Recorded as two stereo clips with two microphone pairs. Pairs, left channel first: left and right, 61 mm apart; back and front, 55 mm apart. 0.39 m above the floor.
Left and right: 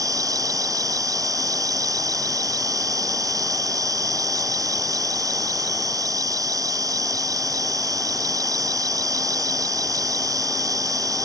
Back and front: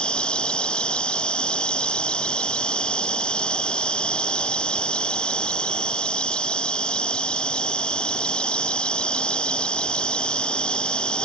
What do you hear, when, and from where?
0.0 s an insect: 110° right